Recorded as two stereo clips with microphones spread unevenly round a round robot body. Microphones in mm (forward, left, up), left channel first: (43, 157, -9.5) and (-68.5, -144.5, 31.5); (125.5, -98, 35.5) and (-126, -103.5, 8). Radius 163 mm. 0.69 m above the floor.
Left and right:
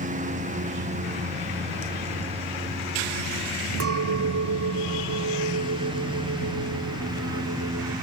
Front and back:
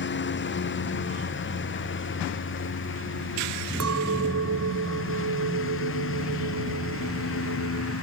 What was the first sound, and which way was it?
A lawn mower, 40° right.